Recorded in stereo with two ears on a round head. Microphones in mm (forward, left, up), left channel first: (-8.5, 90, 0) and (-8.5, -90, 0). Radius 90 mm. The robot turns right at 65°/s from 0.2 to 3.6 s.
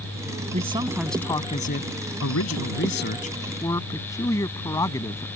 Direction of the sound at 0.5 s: 35° right.